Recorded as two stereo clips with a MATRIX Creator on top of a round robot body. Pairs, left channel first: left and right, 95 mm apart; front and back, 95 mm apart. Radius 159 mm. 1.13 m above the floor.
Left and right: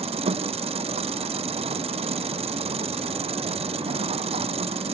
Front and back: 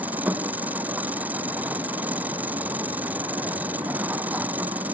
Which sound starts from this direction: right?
An engine running, at 0.0 s.